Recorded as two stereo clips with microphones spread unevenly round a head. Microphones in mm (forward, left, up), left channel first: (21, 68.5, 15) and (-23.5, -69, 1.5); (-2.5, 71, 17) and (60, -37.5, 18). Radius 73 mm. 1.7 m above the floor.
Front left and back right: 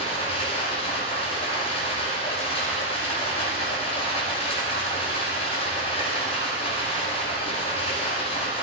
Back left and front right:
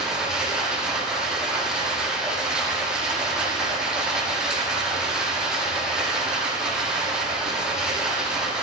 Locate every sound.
0.0 s running water: 25° left, 6.5 m